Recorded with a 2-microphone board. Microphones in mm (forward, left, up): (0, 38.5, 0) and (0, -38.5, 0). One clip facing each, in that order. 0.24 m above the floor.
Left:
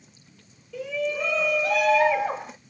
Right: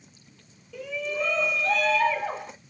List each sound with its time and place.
0.7 s a shout: centre (ahead or behind), 2 m; by 2.5 s 20° left (ahead or behind), 1.4 m